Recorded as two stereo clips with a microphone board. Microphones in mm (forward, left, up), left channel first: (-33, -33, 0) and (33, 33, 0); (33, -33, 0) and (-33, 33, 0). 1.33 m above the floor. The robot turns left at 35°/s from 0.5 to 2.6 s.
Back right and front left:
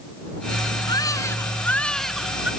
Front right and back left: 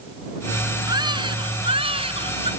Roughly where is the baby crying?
Behind.